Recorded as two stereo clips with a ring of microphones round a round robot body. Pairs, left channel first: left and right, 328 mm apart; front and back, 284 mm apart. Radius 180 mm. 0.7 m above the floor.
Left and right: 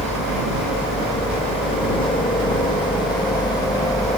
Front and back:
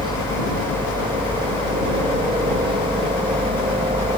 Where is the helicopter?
130° left; by 4.2 s 150° left.